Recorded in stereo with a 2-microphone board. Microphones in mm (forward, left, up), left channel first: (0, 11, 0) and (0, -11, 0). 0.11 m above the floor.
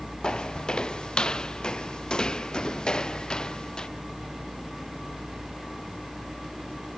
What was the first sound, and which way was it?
Footsteps, 40° left (ahead or behind).